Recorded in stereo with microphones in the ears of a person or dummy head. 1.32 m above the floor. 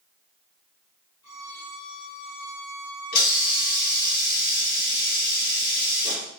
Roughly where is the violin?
Left.